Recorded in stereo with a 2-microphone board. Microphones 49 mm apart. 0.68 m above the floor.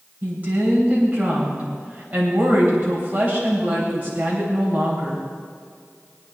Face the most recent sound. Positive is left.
turn(degrees=-35)  # may be behind; listen again after turning